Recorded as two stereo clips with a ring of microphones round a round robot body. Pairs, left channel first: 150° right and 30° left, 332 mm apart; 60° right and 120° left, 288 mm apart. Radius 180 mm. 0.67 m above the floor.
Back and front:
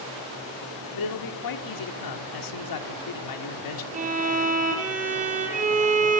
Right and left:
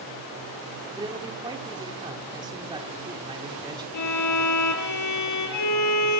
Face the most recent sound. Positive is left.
turn(degrees=-40)